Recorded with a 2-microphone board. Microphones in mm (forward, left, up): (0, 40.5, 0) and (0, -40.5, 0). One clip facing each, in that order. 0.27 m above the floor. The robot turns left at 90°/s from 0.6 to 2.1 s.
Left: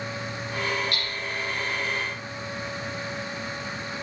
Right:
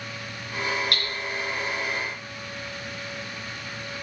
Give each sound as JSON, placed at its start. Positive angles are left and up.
{"t": 0.9, "sound": "hammering", "side_deg": -65, "distance_m": 3.5}